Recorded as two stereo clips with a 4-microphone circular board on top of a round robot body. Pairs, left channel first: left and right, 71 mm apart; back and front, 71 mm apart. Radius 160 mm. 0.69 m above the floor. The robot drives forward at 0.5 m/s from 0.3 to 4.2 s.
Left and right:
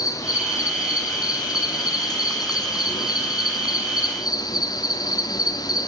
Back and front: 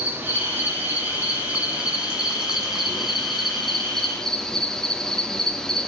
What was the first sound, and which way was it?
An insect, 60° left.